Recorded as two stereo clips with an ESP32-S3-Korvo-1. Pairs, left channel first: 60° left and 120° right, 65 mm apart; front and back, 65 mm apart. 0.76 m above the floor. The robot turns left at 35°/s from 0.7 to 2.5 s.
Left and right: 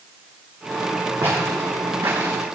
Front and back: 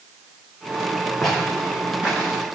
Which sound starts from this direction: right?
Footsteps, at 1.2 s.